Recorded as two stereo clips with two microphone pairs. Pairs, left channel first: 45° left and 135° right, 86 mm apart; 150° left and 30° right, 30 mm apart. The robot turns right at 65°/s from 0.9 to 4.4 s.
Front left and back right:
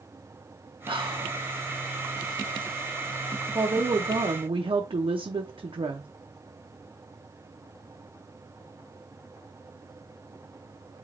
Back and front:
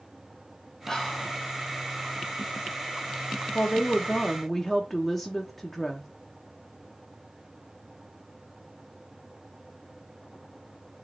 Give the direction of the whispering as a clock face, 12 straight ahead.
5 o'clock.